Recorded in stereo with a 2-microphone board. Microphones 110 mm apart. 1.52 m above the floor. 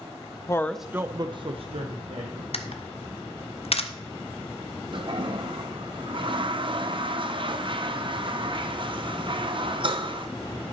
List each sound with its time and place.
0.5 s a woman speaking: 30° left (ahead or behind), 0.5 m; by 2.4 s 75° right (ahead or behind), 1.4 m
2.5 s a camera shutter: 65° left (ahead or behind), 0.7 m
4.9 s a toilet flushing: 50° right (ahead or behind), 0.7 m